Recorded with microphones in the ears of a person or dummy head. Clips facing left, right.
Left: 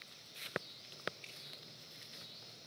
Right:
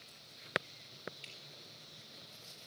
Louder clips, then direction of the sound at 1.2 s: Right 1 dB; 10° right (ahead or behind).